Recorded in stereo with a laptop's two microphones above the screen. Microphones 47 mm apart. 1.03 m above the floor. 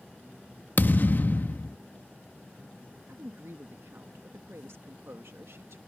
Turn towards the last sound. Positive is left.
turn(degrees=-75)  # may be behind; listen again after turning